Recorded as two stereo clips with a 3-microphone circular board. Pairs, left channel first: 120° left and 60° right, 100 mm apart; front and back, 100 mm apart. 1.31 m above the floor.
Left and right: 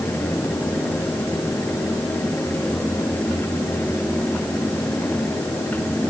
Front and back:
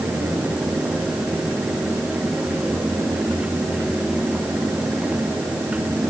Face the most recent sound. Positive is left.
No sound to turn to.